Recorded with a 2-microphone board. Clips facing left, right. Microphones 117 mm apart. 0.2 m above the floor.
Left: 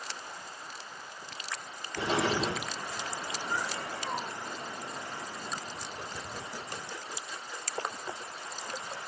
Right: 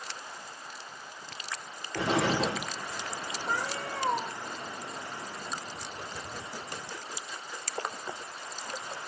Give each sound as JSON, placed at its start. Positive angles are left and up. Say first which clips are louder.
{"t": 1.9, "sound": "an explosion", "louder": "right 2 dB", "side_deg": -70, "distance_m": 6.0}
{"t": 3.5, "sound": "a cat meowing", "louder": "right 3 dB", "side_deg": -75, "distance_m": 2.0}